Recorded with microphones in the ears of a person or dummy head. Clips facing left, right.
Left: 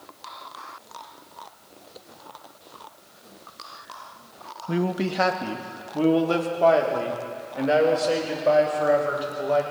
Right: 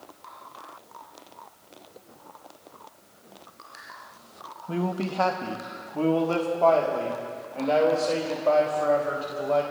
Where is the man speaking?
20° left (ahead or behind), 0.7 m.